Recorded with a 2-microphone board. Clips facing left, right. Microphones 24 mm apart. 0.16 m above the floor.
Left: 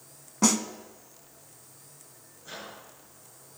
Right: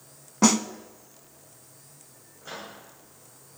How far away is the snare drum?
About 0.5 m.